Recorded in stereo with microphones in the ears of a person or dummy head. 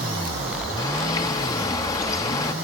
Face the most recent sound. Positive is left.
turn(degrees=20)  # may be behind; listen again after turning